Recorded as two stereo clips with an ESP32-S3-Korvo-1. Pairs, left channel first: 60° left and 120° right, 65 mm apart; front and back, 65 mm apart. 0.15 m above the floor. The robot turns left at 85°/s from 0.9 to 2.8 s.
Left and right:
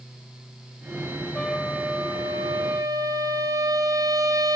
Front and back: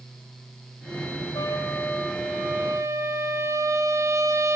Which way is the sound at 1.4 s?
20° right.